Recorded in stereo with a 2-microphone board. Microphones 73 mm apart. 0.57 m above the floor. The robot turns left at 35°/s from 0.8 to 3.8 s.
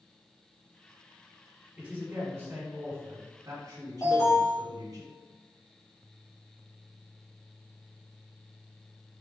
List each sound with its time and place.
1.8 s a man speaking: 15° right, 1.9 m; by 5.0 s 90° right, 1.9 m
4.0 s an alarm: 50° left (ahead or behind), 1.7 m